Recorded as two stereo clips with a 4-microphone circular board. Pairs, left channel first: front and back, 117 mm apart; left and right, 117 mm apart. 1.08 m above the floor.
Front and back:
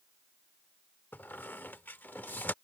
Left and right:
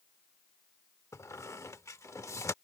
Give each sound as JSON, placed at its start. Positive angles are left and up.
{"t": 1.1, "sound": "a squeak", "azimuth_deg": 55}